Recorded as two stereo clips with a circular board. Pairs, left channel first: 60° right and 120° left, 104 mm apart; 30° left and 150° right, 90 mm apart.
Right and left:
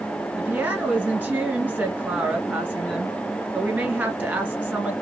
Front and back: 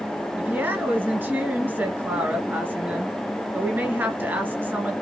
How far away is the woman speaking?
About 1.5 m.